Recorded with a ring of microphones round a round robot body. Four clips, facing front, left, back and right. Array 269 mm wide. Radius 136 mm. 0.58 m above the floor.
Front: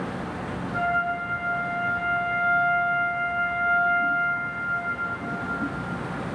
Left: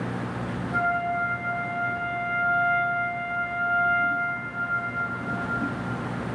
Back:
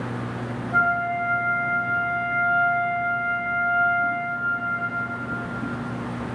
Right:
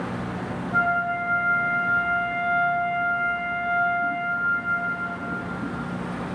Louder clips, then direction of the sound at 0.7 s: Right 2 dB, back 3 dB; 165° right.